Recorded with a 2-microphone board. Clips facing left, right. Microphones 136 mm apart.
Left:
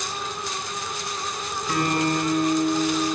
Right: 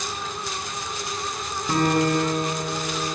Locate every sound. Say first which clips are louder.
1.7 s a guitar: right 3 dB; 30° right (ahead or behind), 4.5 m